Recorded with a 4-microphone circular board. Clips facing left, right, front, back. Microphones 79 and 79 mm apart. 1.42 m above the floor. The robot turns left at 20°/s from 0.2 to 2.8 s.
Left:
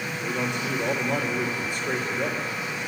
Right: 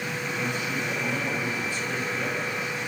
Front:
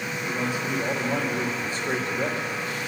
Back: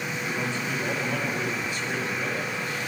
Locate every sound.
0.2 s a man speaking: 80° left, 3 m; by 2.8 s 30° left, 3 m